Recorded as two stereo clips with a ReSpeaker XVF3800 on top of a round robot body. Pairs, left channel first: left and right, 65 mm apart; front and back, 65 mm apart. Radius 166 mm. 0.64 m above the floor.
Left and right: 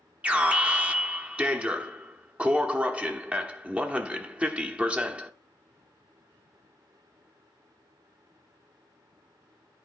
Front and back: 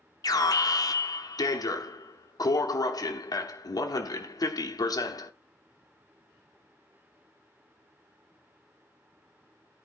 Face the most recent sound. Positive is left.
turn(degrees=-20)